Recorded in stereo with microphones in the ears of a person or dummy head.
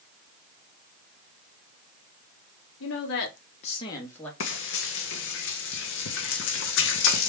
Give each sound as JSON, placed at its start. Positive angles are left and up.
{"t": 2.8, "sound": "a woman speaking", "side_deg": 70, "distance_m": 1.2}
{"t": 4.4, "sound": "frying", "side_deg": 65, "distance_m": 0.8}